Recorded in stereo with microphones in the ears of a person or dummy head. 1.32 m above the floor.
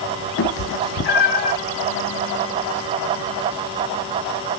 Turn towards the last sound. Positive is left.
turn(degrees=45)  # may be behind; listen again after turning